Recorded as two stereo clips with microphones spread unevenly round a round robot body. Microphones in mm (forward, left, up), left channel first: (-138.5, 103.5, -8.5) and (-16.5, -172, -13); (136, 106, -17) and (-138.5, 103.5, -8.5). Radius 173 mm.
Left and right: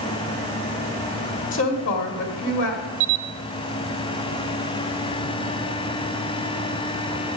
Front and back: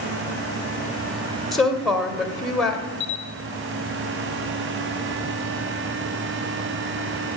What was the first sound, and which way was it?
A woman speaking, 90° left.